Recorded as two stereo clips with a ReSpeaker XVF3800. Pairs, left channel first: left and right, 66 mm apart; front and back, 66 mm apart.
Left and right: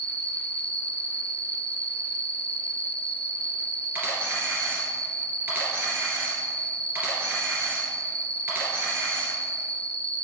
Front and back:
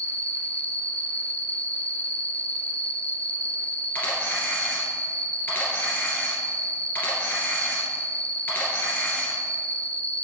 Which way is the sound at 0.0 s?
65° right.